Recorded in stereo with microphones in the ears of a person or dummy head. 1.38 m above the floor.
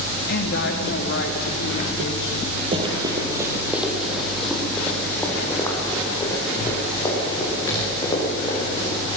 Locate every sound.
0.3 s a woman speaking: 60° left (ahead or behind), 1.8 m; by 2.6 s 65° left (ahead or behind), 4.5 m
2.7 s running footsteps: 30° right (ahead or behind), 2.5 m; by 9.2 s 30° left (ahead or behind), 8.5 m